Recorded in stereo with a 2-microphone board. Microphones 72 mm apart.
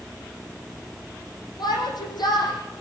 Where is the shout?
70° left (ahead or behind), 10 m.